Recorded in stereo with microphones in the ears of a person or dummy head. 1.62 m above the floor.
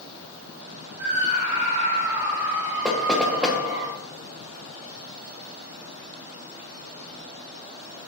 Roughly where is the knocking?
Centre.